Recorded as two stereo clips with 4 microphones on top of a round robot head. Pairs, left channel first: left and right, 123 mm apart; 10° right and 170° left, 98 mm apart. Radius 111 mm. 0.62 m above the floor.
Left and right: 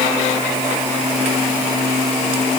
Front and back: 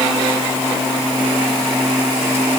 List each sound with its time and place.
Only background noise.